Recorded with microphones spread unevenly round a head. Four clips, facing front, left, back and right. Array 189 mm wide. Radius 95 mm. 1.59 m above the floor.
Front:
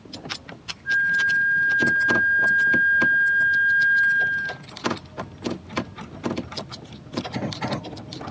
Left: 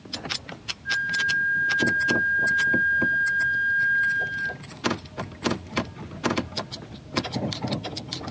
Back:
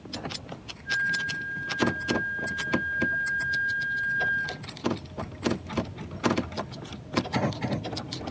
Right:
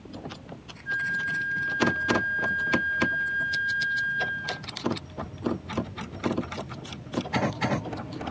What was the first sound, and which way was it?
A flute, 20° left.